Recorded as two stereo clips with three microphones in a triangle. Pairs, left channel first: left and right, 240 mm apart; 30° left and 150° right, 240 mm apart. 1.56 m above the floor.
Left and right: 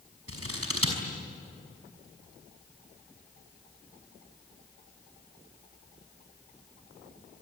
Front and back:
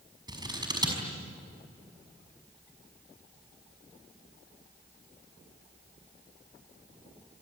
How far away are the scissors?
About 5.5 m.